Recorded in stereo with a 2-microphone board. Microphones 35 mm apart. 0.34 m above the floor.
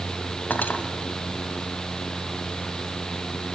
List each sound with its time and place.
0.5 s cutlery clinking: 60° left (ahead or behind), 1.4 m